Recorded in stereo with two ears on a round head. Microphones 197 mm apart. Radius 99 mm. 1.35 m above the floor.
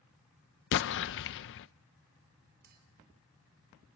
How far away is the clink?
About 4 m.